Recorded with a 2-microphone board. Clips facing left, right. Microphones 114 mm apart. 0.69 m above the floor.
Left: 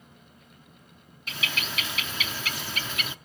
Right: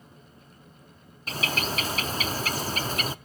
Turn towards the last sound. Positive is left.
turn(degrees=-40)  # may be behind; listen again after turning